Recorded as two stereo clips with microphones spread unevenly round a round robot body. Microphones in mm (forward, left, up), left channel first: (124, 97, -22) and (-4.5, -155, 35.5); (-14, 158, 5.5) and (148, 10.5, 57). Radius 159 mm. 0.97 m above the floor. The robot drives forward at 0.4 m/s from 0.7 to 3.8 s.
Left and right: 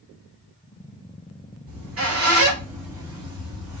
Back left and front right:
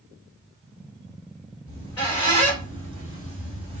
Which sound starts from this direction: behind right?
A squeak, at 1.7 s.